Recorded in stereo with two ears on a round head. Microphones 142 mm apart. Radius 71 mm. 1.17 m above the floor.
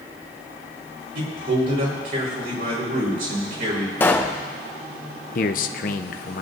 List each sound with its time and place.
1.1 s a man speaking: 60° right (ahead or behind), 5 m
4.0 s a pop: 15° left (ahead or behind), 0.8 m
5.3 s a man speaking: 55° left (ahead or behind), 0.7 m